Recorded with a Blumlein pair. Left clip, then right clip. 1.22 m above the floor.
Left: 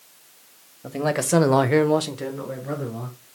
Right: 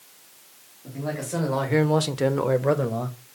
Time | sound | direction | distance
0.8 | a man speaking | 50° left | 1.8 m